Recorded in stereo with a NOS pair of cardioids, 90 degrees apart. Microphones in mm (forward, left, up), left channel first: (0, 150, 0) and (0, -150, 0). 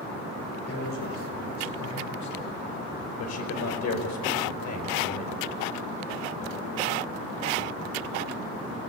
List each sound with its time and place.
0.7 s a man speaking: 60° left, 8.5 m; by 3.1 s 75° left, 7.5 m
3.2 s a man speaking: 65° left, 5 m